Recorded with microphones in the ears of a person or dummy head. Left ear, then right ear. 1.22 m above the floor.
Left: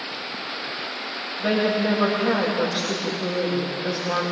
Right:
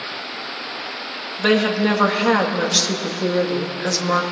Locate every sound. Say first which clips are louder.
1.4 s a woman speaking: right 4 dB; 60° right (ahead or behind), 2.5 m